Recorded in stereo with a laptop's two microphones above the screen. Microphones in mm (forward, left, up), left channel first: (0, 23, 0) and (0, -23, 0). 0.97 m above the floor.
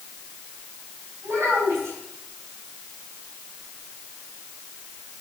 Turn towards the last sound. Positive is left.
turn(degrees=-65)  # may be behind; listen again after turning